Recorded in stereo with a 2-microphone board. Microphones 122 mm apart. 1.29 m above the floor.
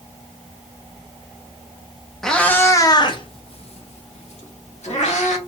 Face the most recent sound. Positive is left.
turn(degrees=60)  # may be behind; listen again after turning